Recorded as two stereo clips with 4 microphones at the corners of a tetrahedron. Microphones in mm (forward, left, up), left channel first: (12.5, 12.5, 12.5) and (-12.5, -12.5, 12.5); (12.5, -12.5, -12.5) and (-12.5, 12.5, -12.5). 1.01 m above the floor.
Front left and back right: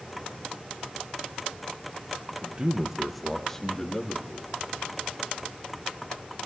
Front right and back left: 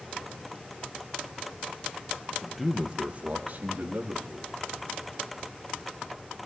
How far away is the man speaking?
About 0.9 m.